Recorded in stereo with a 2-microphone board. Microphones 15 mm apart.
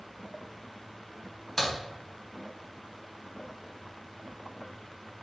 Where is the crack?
15° left (ahead or behind), 2 m.